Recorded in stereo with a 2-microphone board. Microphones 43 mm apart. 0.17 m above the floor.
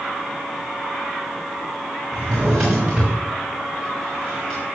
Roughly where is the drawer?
Centre.